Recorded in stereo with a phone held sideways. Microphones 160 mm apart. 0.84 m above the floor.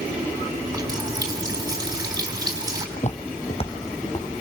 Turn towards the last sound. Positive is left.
turn(degrees=30)  # may be behind; listen again after turning